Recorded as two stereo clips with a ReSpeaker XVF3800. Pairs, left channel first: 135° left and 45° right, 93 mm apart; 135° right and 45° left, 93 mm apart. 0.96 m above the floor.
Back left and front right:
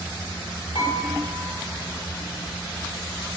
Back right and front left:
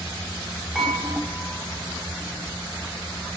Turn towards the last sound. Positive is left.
turn(degrees=135)